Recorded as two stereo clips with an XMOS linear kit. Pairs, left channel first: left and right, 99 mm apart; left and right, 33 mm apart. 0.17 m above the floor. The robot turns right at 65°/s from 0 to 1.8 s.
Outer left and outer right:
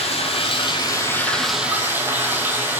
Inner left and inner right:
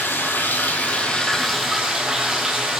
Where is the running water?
85° left, 0.8 m; by 2.8 s 160° right, 0.8 m.